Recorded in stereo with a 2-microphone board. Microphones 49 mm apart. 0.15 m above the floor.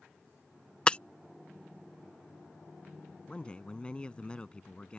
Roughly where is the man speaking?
Left.